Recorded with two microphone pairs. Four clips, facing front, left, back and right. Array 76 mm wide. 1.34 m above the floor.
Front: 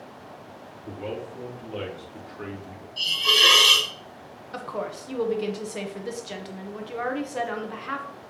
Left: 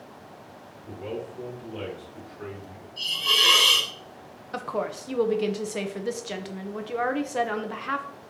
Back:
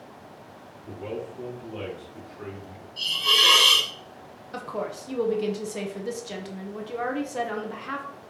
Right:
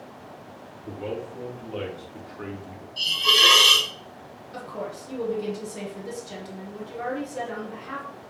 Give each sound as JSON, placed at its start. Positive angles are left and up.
{"t": 0.8, "sound": "a man speaking", "azimuth_deg": -60, "distance_m": 3.5}
{"t": 3.0, "sound": "a hiss", "azimuth_deg": -95, "distance_m": 3.0}
{"t": 4.5, "sound": "a woman speaking", "azimuth_deg": 70, "distance_m": 0.9}